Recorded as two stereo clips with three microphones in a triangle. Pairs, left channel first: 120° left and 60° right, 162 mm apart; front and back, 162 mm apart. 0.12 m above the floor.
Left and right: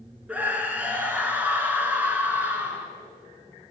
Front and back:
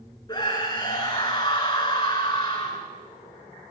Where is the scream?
10° left, 1.3 m.